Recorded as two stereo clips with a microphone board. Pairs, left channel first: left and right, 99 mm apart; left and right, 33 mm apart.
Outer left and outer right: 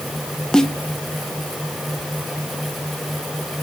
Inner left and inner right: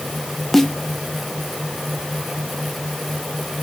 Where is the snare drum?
5° left (ahead or behind), 0.9 m.